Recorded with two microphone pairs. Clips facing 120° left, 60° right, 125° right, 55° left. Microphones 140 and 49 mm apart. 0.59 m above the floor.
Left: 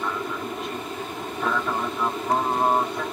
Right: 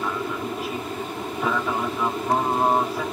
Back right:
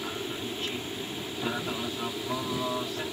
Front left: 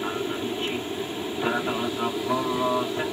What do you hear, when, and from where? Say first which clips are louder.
0.0 s an aircraft: right 2 dB, front left 6 dB; 25° left